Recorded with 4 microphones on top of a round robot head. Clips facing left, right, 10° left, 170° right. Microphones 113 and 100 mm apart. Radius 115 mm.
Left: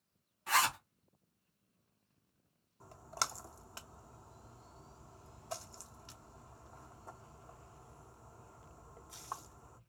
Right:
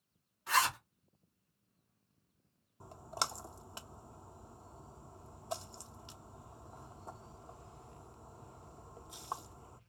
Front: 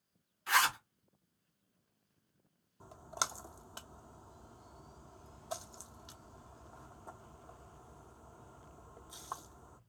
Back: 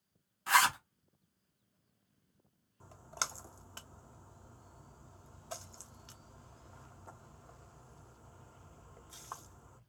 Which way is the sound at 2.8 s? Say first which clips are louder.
Right 2 dB, front 2 dB; 40° right.